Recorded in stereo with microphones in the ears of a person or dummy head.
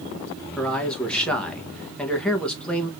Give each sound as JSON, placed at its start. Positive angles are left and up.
{"t": 0.6, "sound": "a man speaking", "side_deg": 0, "distance_m": 1.1}